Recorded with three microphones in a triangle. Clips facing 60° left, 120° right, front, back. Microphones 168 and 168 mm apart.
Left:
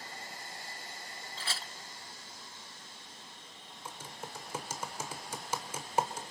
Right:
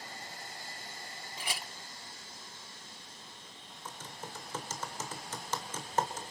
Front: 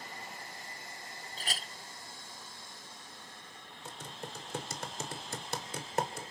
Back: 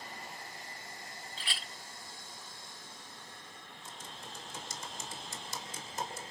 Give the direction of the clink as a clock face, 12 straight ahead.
1 o'clock.